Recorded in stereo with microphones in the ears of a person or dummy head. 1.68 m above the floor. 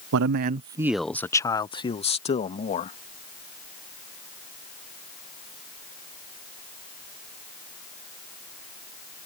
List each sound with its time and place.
0.1 s a man speaking: 70° right (ahead or behind); by 3.0 s 35° left (ahead or behind)